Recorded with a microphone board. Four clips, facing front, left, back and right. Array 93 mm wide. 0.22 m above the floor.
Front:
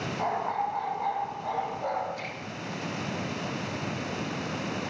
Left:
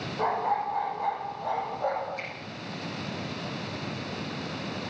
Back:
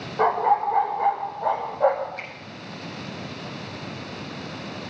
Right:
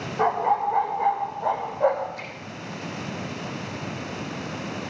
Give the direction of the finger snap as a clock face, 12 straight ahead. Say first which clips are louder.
Right 1 dB, even; 7 o'clock.